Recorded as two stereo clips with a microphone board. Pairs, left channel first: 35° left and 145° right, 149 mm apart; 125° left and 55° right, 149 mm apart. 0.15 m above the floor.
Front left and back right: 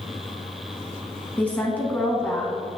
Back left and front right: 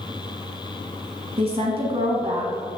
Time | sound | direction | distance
1.4 | a woman speaking | 40° right | 1.3 m